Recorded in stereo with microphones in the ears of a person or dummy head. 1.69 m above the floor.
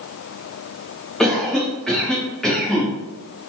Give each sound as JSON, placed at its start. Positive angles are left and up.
{"t": 1.2, "sound": "a cough", "side_deg": 5, "distance_m": 2.0}